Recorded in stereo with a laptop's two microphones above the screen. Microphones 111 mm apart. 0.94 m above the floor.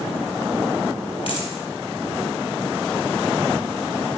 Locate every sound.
1.3 s a dropped coin: 50° left (ahead or behind), 2 m